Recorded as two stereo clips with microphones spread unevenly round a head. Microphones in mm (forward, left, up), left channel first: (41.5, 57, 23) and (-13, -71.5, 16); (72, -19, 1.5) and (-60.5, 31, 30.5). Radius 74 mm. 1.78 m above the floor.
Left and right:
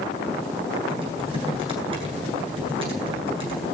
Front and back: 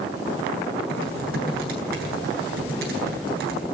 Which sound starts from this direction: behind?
Typing on a keyboard, at 0.9 s.